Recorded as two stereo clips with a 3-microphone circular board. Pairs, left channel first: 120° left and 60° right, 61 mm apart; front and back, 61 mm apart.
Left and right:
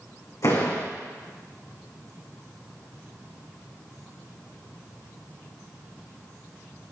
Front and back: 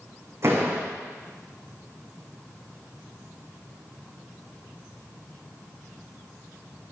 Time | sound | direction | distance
0.4 | a door slam | 140° left | 6 m